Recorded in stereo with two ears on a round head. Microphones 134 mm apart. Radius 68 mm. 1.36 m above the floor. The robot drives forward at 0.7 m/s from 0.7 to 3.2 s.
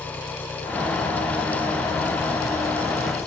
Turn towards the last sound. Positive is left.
turn(degrees=20)  # may be behind; listen again after turning